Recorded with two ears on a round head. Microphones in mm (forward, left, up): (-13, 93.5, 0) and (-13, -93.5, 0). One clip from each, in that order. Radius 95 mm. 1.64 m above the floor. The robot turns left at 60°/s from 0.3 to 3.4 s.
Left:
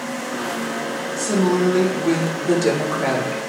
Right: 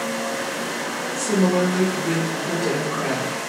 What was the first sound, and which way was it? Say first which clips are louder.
A woman speaking: left 1 dB; 150° right.